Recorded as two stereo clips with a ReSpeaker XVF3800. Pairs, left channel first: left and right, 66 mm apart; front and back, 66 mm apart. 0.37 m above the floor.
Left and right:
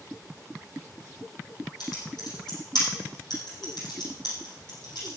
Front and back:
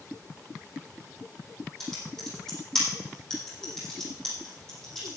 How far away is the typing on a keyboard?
About 5.5 m.